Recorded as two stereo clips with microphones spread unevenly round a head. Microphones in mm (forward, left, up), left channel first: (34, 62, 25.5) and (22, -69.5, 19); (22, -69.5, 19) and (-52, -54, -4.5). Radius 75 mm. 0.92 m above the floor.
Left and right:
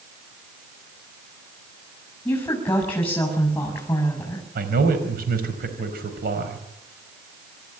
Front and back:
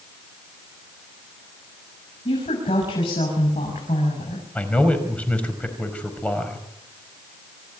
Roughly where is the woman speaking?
Ahead.